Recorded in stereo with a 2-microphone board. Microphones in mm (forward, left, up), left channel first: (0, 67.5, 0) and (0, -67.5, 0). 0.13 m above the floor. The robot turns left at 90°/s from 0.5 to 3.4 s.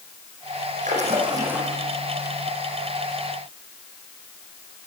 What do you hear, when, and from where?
0.8 s a splash: 105° right, 7 m; by 1.8 s 170° left, 7 m